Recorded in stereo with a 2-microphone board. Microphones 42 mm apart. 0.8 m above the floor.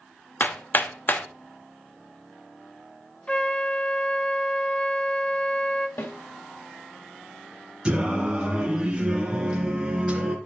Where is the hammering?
50° left (ahead or behind), 0.9 m.